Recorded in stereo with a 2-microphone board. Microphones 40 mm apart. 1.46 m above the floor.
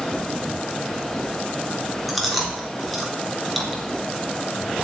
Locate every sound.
2.1 s chewing: 5° left (ahead or behind), 3.5 m